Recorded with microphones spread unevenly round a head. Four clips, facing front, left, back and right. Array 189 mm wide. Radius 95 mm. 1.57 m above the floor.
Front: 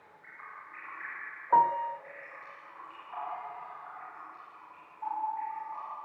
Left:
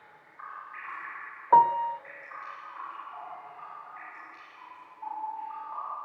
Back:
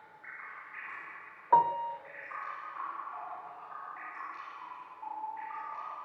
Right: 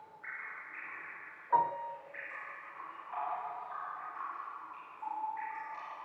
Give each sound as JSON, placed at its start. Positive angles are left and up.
{"t": 1.5, "sound": "a piano", "azimuth_deg": 80, "distance_m": 0.6}